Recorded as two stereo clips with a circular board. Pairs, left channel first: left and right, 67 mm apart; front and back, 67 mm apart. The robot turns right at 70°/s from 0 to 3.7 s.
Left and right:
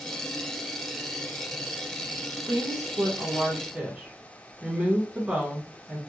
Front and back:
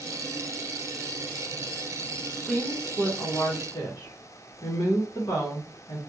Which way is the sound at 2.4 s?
100° right.